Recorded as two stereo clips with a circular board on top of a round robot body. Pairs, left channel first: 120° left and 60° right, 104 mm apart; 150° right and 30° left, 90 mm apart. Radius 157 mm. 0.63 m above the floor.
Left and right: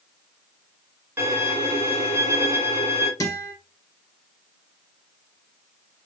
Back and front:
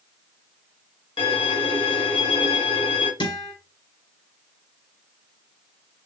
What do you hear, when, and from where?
1.2 s a violin: 130° right, 1.8 m
3.2 s a guitar: straight behind, 2.5 m